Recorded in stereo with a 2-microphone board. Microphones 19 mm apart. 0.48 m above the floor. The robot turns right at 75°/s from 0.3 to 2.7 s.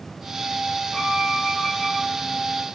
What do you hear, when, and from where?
0.9 s a violin: 65° right, 5.5 m; by 1.9 s 10° left, 5.5 m